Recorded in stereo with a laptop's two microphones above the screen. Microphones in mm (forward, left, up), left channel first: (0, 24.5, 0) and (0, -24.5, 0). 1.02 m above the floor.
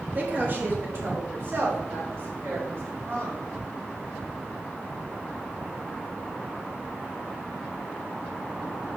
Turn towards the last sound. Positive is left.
turn(degrees=-60)  # may be behind; listen again after turning